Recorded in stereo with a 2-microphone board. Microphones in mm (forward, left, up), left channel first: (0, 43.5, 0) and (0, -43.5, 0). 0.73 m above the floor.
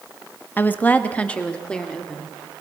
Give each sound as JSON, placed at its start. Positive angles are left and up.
{"t": 0.6, "sound": "a woman speaking", "side_deg": 20, "distance_m": 0.9}